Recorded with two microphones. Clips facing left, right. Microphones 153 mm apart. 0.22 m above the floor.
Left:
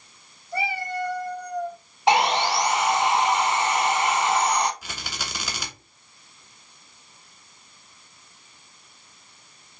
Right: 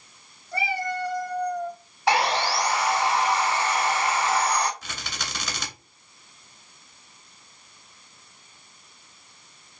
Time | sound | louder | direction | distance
0.5 | a cat meowing | even | 70° right (ahead or behind) | 1.6 m
2.1 | sawing | left 3 dB | 20° left (ahead or behind) | 0.5 m
4.8 | a rattle | left 1 dB | 10° left (ahead or behind) | 0.9 m